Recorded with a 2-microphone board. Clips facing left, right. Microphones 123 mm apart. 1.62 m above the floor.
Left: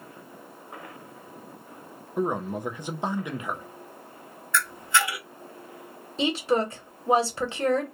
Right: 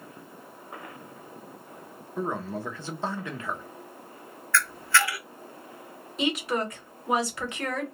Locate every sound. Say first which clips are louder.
2.2 s a man speaking: left 4 dB; 15° left (ahead or behind), 0.5 m
4.5 s a camera shutter: even; 20° left (ahead or behind), 0.5 m
6.2 s a woman speaking: left 3 dB; 30° left (ahead or behind), 0.9 m